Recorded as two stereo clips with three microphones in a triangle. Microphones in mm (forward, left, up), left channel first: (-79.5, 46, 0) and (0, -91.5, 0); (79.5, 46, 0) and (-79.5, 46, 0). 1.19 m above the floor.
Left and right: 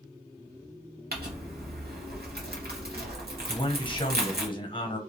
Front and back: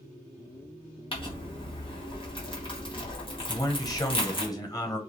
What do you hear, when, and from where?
1.1 s crumpling: 55° right, 0.8 m
3.5 s a man speaking: 65° left, 0.7 m